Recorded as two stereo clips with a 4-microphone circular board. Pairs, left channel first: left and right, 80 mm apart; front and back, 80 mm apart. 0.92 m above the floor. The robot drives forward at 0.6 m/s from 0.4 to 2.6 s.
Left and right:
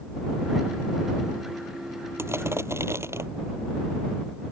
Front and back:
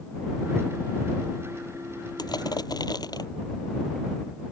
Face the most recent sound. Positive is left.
turn(degrees=-30)